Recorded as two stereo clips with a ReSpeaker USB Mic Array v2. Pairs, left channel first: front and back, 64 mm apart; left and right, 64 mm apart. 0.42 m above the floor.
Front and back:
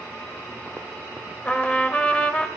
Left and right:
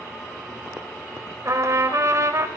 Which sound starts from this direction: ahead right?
A trumpet, at 1.4 s.